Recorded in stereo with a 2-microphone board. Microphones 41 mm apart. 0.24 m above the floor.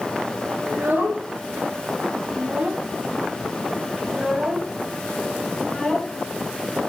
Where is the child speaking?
65° right (ahead or behind), 2 m; by 6.9 s 35° left (ahead or behind), 1.7 m.